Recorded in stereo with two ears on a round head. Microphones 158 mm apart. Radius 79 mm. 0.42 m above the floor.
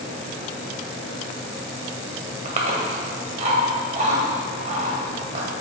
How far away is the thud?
I don't hear a thud.